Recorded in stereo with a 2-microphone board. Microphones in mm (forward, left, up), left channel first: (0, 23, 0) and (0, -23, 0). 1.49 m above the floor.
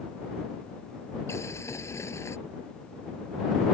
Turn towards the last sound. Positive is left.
turn(degrees=85)